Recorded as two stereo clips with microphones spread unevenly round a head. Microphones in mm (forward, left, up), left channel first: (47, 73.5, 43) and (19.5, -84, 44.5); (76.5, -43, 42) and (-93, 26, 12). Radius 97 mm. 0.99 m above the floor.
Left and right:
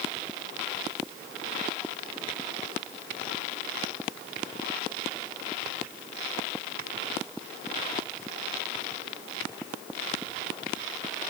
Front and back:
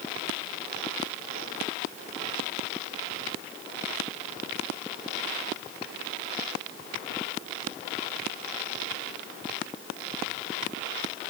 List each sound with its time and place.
Only background noise.